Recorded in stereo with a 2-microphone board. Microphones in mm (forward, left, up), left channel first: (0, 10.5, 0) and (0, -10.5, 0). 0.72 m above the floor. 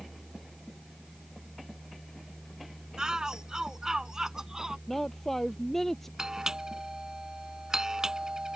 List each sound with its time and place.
3.0 s a shout: 35° right (ahead or behind); by 4.8 s 30° right (ahead or behind)
4.9 s a woman speaking: 10° left (ahead or behind)
6.2 s a doorbell: 30° right (ahead or behind)